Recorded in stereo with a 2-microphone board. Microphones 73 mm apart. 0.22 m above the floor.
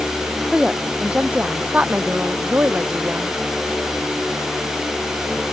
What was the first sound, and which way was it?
A woman speaking, 10° right (ahead or behind).